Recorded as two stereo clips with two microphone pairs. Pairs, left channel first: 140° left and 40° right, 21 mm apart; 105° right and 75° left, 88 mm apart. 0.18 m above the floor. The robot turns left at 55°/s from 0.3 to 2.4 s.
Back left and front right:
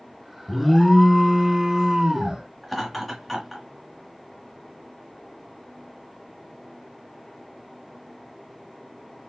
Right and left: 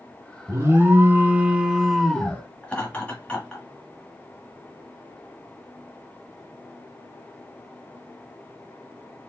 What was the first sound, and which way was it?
An alarm, 70° left.